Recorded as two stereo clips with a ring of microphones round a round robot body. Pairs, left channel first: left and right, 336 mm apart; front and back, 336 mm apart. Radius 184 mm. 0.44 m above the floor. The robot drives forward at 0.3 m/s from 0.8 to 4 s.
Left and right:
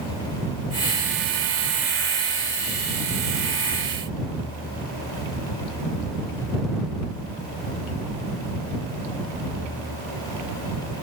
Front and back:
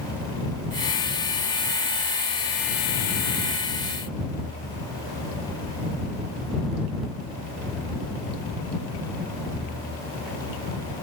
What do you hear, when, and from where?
Only background noise.